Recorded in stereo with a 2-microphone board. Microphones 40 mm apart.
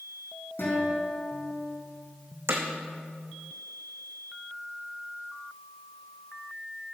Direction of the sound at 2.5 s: 80° right.